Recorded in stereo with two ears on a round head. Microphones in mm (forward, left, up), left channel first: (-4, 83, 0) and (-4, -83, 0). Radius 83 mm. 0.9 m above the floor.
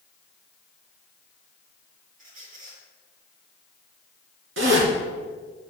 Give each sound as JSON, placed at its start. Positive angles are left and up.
{"t": 2.2, "sound": "a squeak", "side_deg": -50, "distance_m": 4.5}
{"t": 4.6, "sound": "a zipper", "side_deg": -80, "distance_m": 4.0}